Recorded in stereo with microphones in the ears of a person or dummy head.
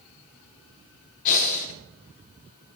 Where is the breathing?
40° left (ahead or behind), 0.7 m.